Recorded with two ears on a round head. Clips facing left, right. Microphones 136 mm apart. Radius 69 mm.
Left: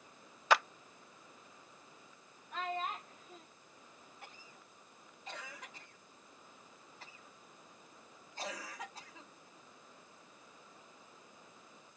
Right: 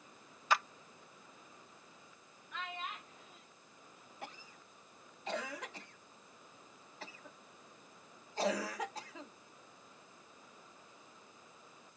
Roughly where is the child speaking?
Left.